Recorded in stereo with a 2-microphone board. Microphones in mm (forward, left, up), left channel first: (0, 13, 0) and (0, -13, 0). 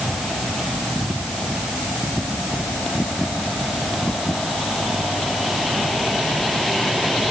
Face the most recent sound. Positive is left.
No sound to turn to.